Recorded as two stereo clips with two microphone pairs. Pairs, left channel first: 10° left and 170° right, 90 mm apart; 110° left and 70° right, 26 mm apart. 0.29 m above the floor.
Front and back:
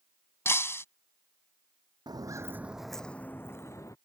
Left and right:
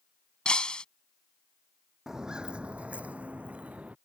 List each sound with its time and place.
0.5 s breaking glass: 70° left
2.1 s footsteps: 135° right; by 4.0 s 40° right